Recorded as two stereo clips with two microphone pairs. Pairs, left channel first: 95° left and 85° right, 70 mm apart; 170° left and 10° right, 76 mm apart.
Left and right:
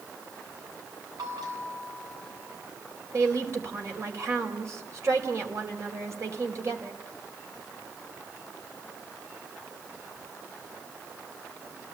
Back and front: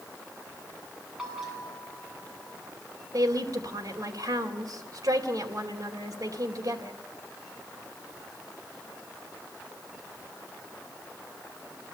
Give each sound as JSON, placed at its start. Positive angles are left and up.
{"t": 1.2, "sound": "a bell", "azimuth_deg": -95, "distance_m": 8.5}
{"t": 3.1, "sound": "a woman speaking", "azimuth_deg": -45, "distance_m": 4.0}